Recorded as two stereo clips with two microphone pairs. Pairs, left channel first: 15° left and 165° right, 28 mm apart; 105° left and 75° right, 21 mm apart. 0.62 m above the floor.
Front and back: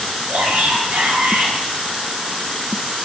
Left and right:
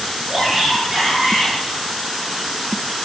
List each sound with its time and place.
0.3 s a shout: 140° right, 9 m